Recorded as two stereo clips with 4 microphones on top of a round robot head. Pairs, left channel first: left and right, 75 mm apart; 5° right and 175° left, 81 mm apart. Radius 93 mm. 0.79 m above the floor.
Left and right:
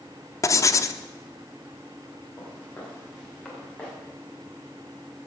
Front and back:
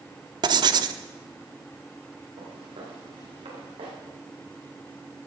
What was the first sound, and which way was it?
Writing, 140° left.